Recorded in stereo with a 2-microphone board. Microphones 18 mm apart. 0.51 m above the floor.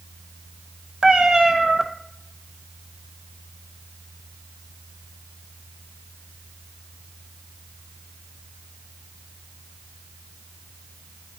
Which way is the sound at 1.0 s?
45° right (ahead or behind).